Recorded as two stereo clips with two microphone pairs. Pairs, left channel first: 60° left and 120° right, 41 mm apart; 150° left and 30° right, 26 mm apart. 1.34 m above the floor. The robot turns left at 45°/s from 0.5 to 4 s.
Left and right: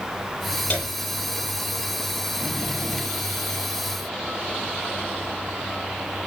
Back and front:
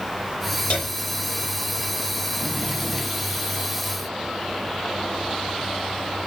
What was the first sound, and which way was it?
A piano, 120° left.